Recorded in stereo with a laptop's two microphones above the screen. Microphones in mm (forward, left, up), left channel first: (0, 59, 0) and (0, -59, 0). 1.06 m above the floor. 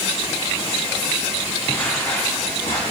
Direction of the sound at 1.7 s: 15° left (ahead or behind).